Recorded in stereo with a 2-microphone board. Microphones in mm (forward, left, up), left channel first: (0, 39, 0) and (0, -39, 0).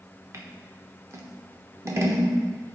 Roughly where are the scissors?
Right.